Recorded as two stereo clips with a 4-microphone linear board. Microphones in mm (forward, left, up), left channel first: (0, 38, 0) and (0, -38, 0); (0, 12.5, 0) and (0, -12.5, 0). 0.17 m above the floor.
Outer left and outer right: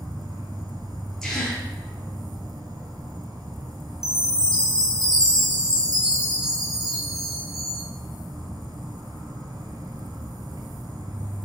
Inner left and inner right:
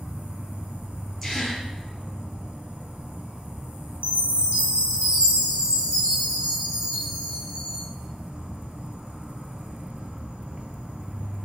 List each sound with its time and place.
0.0 s an insect: 60° right (ahead or behind), 1.1 m
1.2 s a gasp: 5° left (ahead or behind), 2.5 m
4.0 s a chime: 55° right (ahead or behind), 2.5 m